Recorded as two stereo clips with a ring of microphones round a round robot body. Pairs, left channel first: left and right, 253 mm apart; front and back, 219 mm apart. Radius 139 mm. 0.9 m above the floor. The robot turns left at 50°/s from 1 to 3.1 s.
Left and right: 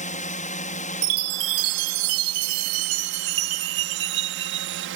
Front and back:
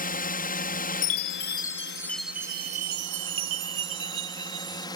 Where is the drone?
35° left; by 5.0 s 70° right.